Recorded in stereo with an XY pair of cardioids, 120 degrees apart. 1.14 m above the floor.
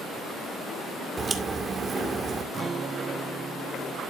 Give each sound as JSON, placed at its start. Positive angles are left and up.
{"t": 1.2, "sound": "a crack", "azimuth_deg": -30, "distance_m": 2.0}
{"t": 2.5, "sound": "a guitar", "azimuth_deg": -35, "distance_m": 0.6}